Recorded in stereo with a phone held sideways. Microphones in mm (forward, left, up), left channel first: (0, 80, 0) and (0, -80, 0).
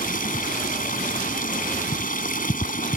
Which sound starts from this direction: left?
Running water, at 0.0 s.